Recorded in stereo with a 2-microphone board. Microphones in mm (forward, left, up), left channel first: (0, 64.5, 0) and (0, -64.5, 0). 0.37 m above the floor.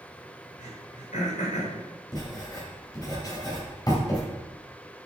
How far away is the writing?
About 2.5 m.